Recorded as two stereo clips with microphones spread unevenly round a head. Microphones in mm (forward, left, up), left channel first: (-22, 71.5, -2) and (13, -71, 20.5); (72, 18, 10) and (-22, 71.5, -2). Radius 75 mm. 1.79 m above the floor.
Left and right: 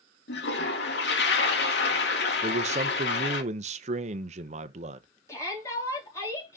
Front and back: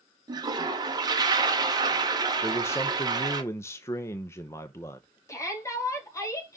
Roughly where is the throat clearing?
No throat clearing in this recording.